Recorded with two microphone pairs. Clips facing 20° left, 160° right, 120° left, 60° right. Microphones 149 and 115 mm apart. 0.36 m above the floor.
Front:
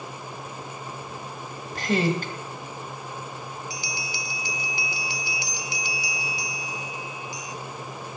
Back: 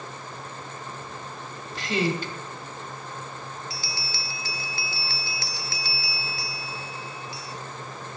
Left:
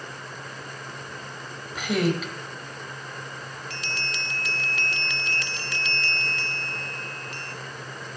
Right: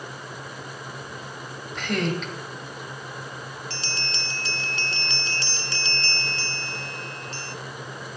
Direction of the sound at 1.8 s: 40° left.